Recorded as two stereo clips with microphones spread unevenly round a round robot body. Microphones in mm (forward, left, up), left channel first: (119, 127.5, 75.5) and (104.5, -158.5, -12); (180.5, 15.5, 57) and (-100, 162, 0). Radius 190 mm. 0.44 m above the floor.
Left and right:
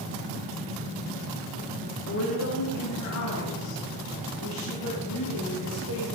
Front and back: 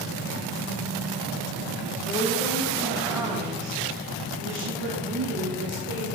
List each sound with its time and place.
2.1 s a woman speaking: 40° left, 2 m; by 6.0 s 115° left, 5 m